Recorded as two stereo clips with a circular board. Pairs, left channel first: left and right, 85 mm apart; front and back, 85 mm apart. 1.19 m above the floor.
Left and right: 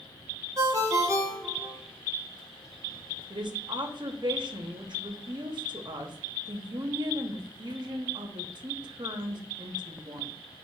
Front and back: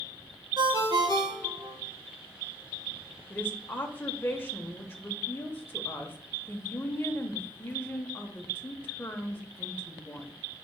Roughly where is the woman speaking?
Ahead right.